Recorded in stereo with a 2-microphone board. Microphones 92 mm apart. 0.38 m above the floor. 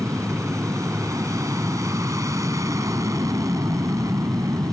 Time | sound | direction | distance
0.0 | an aircraft | 35° right (ahead or behind) | ?